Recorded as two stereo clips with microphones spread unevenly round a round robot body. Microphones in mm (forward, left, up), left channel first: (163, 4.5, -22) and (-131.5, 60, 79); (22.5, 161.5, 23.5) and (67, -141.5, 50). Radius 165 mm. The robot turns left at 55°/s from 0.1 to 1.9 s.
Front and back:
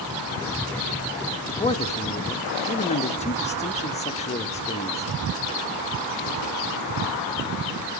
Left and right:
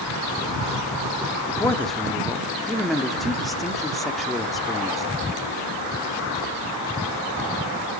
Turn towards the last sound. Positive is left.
turn(degrees=15)